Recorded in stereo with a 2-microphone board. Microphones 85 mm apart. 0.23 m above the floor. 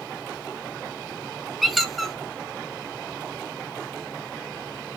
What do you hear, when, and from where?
1.6 s a squeak: centre (ahead or behind), 0.6 m